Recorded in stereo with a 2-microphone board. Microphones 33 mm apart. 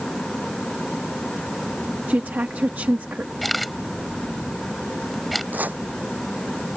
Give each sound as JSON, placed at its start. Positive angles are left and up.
{"t": 2.1, "sound": "a woman speaking", "side_deg": -80}
{"t": 3.4, "sound": "a camera shutter", "side_deg": 0}
{"t": 5.5, "sound": "chopping", "side_deg": -70}